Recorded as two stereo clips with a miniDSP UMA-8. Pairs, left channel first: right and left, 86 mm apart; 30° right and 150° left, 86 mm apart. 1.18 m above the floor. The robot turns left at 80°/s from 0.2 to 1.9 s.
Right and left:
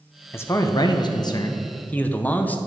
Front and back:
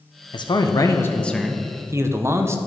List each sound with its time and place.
0.3 s a man speaking: 30° right, 0.6 m; by 2.6 s 155° right, 0.6 m